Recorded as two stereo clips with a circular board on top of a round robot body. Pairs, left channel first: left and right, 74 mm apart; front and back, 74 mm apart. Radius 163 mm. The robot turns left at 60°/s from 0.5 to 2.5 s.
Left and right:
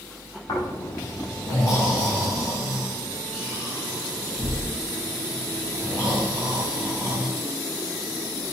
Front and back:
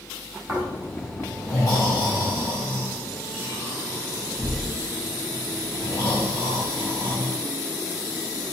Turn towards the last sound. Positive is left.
turn(degrees=-5)